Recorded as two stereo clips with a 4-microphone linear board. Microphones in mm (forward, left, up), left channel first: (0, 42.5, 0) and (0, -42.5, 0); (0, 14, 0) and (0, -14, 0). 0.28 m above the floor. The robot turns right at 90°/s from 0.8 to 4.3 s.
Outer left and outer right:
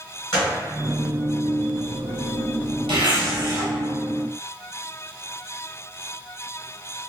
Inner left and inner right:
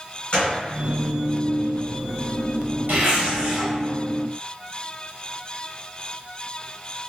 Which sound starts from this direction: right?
A zipper, at 2.9 s.